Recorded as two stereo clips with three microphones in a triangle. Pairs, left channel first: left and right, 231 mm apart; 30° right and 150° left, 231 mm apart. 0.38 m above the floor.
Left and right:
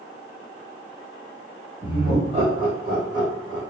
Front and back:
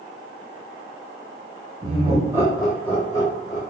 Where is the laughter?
160° right, 1.4 m; by 3.6 s 85° right, 1.6 m.